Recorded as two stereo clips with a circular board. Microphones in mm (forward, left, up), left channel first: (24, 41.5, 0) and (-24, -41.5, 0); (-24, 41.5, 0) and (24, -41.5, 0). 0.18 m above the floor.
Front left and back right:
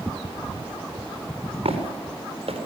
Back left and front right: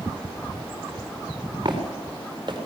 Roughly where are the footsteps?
Right.